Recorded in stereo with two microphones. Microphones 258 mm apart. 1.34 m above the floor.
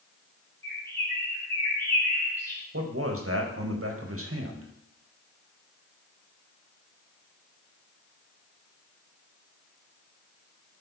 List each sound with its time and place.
0.6 s a bird: 10° left (ahead or behind), 5 m
2.7 s a man speaking: 60° right (ahead or behind), 1.4 m